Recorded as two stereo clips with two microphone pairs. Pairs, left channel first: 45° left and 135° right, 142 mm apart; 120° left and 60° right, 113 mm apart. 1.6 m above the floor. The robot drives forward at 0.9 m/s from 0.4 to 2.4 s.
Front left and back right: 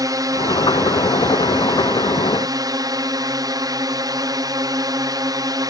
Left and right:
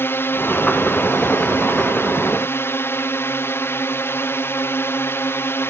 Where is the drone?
175° left; by 5.7 s straight behind.